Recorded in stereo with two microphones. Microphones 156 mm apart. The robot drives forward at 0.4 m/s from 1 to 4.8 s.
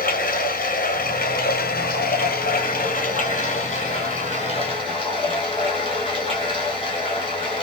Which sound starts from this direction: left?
Running water, at 0.0 s.